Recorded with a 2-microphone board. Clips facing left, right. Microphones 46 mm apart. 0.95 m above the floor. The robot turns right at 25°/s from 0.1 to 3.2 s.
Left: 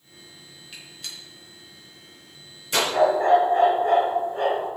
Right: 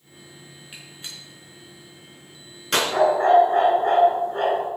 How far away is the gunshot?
About 5 m.